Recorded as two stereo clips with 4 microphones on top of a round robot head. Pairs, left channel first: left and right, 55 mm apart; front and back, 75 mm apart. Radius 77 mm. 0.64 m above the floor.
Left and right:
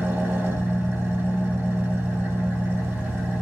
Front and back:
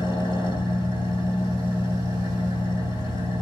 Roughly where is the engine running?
Ahead right.